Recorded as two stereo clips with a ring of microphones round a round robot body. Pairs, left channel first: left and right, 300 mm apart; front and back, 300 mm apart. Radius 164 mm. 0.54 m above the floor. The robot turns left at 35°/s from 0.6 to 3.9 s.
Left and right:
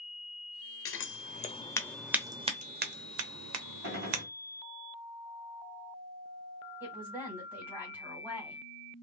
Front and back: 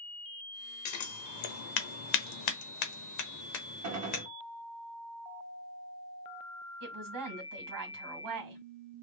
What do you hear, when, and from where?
0.8 s scissors: 40° left, 0.8 m; by 4.2 s 65° right, 0.8 m
3.8 s a gunshot: 145° right, 1.1 m
6.8 s a woman speaking: 175° right, 1.9 m